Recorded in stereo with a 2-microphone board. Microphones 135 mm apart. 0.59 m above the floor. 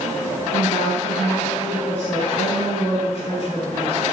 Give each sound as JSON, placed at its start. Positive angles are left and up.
{"t": 0.5, "sound": "a woman speaking", "side_deg": 50, "distance_m": 4.5}